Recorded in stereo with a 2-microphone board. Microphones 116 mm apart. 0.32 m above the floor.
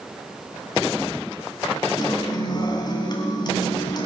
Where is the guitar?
40° left (ahead or behind), 2 m.